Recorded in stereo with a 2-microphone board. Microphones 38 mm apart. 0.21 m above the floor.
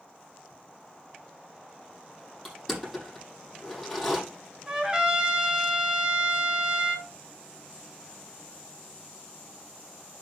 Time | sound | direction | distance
2.5 | crushing | 5° left (ahead or behind) | 8 m
4.7 | a trumpet | 20° right (ahead or behind) | 2 m